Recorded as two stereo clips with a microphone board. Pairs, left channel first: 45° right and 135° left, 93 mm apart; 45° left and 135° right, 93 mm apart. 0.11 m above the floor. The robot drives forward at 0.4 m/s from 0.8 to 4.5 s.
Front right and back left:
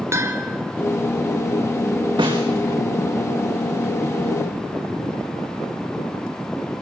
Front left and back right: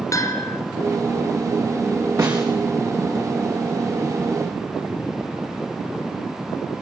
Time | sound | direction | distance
0.1 | a bell | 85° left | 1.9 m
2.2 | a snare drum | 175° left | 6.5 m